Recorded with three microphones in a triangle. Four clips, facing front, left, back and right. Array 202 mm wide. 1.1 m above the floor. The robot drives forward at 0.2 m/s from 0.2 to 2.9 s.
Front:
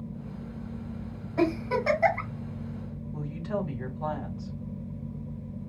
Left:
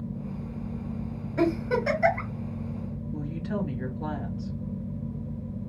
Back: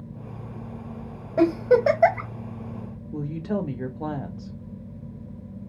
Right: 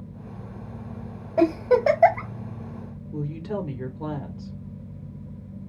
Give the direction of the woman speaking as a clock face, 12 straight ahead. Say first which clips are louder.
Right 3 dB, back 4 dB; 6 o'clock.